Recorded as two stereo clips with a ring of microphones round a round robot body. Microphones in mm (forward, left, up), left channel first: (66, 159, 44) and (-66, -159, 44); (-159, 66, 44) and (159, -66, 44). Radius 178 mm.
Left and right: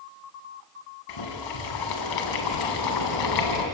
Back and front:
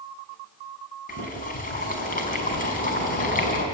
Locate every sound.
1.1 s boiling: 90° left, 3.5 m